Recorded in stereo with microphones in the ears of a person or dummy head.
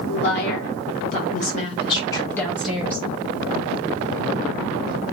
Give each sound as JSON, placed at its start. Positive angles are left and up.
{"t": 0.1, "sound": "a woman speaking", "side_deg": 60, "distance_m": 1.5}